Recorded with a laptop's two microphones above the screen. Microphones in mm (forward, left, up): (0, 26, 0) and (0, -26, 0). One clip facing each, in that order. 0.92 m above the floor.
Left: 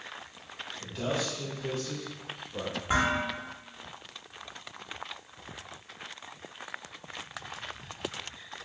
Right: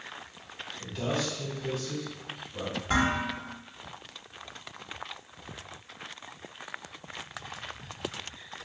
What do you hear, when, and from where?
0.8 s a man speaking: centre (ahead or behind), 1.3 m; by 2.8 s 65° left (ahead or behind), 1.5 m
2.9 s dishes clattering: 15° left (ahead or behind), 1.3 m